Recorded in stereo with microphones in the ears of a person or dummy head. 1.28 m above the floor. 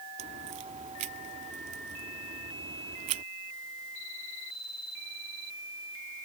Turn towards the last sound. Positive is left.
turn(degrees=-35)  # may be behind; listen again after turning